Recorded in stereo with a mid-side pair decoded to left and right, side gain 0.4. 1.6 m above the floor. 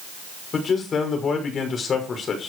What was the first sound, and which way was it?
A man speaking, 55° left.